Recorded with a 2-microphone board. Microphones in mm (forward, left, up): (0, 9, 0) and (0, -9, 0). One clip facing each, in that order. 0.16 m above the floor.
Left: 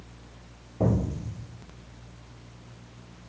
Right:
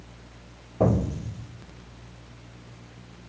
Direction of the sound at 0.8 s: 40° right (ahead or behind).